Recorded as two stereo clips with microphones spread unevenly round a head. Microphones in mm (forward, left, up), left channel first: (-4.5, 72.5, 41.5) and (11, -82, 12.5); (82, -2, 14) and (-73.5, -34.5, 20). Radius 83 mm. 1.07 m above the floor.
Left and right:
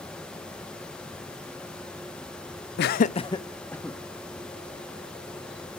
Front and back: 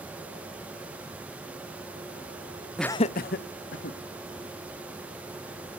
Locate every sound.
2.8 s laughter: 100° left, 0.5 m; by 4.0 s 10° left, 1.7 m